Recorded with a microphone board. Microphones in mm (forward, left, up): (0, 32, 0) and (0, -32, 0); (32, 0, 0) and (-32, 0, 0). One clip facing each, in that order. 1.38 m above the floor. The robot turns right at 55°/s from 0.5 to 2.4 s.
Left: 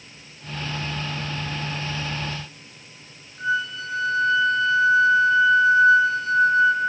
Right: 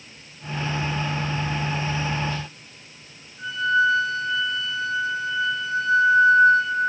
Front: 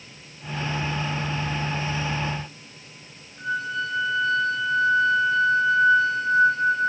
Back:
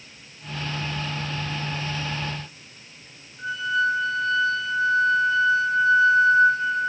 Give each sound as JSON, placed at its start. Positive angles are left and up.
{"t": 3.4, "sound": "a flute", "azimuth_deg": 30, "distance_m": 4.5}